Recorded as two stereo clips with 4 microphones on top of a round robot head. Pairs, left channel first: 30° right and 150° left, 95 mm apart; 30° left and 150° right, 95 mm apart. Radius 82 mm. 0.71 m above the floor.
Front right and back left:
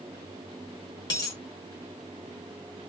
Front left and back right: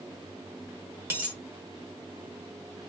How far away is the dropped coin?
About 0.5 m.